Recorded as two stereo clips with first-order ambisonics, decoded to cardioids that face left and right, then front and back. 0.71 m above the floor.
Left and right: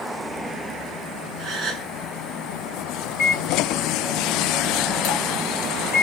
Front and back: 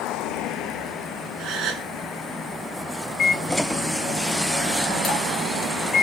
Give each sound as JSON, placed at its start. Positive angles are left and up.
{"t": 1.4, "sound": "a gasp", "azimuth_deg": -150, "distance_m": 1.4}
{"t": 3.2, "sound": "a microwave", "azimuth_deg": 50, "distance_m": 1.5}